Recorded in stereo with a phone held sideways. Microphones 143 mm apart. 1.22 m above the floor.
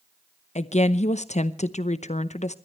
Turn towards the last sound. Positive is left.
turn(degrees=55)  # may be behind; listen again after turning